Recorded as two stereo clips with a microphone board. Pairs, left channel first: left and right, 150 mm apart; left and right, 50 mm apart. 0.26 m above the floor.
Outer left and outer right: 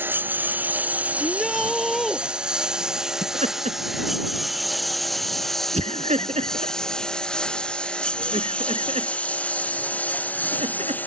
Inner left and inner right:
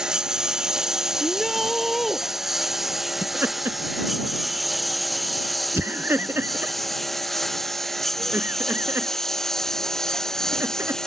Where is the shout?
Centre (ahead or behind).